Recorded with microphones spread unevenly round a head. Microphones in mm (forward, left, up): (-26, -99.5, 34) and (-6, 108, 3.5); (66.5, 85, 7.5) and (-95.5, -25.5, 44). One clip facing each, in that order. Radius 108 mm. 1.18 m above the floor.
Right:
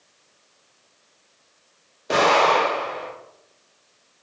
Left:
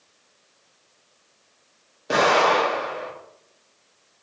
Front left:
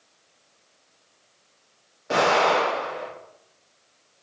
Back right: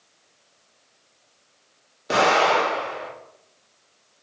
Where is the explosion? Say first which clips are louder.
Right 1 dB, back right 1 dB; 165° left, 1.7 m.